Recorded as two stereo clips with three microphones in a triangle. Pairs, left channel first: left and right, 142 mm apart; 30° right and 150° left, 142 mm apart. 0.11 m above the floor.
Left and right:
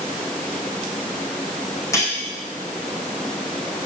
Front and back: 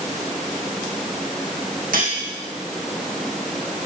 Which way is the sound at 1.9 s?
160° left.